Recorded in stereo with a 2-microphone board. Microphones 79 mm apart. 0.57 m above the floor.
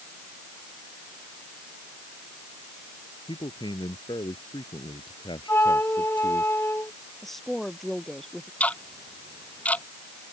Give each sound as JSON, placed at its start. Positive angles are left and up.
{"t": 3.3, "sound": "a man speaking", "side_deg": 85}
{"t": 5.5, "sound": "a flute", "side_deg": 30}
{"t": 7.2, "sound": "a woman speaking", "side_deg": 5}
{"t": 8.6, "sound": "ticking", "side_deg": 15}